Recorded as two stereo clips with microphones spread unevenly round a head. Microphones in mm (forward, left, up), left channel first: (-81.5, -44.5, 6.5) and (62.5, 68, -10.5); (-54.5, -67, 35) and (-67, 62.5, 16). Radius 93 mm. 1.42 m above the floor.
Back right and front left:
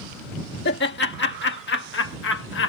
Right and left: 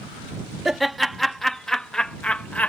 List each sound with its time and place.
0.7 s laughter: 175° right; by 2.7 s 165° right